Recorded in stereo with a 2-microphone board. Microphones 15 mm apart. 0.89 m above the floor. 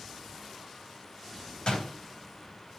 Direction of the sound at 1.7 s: 75° left (ahead or behind).